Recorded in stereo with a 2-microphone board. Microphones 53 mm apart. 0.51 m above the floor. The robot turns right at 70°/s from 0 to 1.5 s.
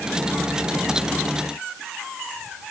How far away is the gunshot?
I don't hear a gunshot.